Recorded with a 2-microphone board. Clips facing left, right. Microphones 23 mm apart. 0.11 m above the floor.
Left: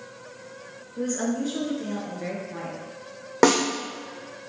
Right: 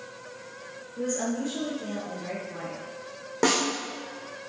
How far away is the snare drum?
About 1.2 m.